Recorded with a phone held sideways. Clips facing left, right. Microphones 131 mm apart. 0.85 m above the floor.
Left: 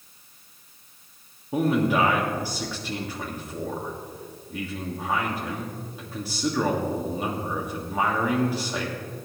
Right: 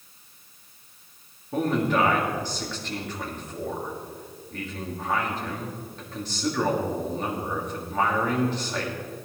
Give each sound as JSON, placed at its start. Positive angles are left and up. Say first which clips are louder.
{"t": 1.5, "sound": "a man speaking", "louder": "left 2 dB", "side_deg": 10, "distance_m": 1.6}